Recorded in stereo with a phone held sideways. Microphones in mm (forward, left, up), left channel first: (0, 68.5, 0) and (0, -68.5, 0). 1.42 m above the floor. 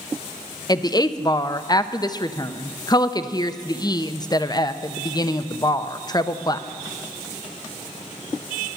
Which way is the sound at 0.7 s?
30° left (ahead or behind).